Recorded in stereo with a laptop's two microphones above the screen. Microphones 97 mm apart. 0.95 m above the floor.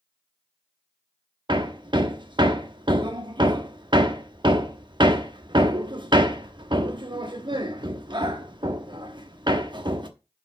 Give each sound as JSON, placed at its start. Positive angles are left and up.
{"t": 1.5, "sound": "hammering", "side_deg": -55, "distance_m": 0.9}